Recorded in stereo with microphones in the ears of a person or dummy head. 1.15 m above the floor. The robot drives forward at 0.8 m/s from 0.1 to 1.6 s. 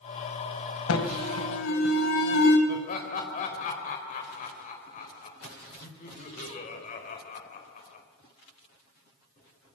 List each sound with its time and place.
0.9 s an alarm: 75° left (ahead or behind), 4 m; by 2.6 s 70° left (ahead or behind), 4 m
2.7 s laughter: 40° left (ahead or behind), 4.5 m